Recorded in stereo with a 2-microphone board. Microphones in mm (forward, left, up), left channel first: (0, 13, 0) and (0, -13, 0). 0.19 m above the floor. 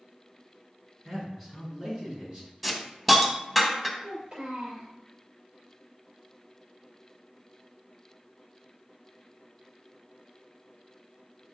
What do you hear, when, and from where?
1.1 s a man speaking: 5° left (ahead or behind), 2.0 m; by 2.5 s 15° right (ahead or behind), 3.5 m
2.6 s a hiss: centre (ahead or behind), 0.7 m
4.0 s a child speaking: 30° right (ahead or behind), 2.5 m